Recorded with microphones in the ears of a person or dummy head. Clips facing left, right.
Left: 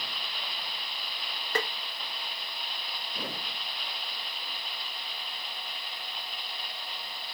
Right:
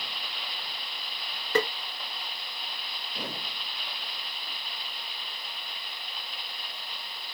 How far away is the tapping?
About 0.6 m.